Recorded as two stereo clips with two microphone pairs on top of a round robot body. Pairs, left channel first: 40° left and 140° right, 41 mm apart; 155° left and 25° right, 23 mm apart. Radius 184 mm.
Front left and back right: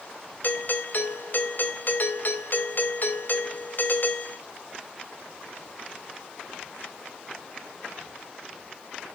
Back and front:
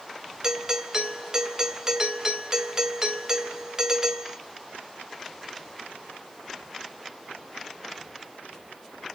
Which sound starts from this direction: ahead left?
A doorbell, at 0.4 s.